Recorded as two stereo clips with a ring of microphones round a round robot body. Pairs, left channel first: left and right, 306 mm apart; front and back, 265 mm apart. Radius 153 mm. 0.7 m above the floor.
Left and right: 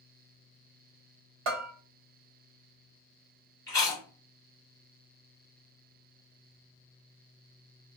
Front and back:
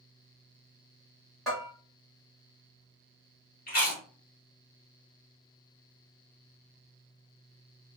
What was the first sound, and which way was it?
A bell, 90° right.